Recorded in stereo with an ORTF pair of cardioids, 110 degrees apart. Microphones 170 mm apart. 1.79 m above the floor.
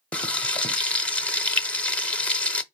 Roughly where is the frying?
Ahead.